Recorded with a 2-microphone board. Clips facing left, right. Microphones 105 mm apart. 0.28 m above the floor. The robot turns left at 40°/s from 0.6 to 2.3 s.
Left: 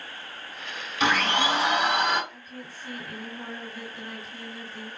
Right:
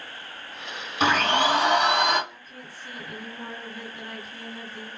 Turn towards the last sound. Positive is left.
turn(degrees=5)  # may be behind; listen again after turning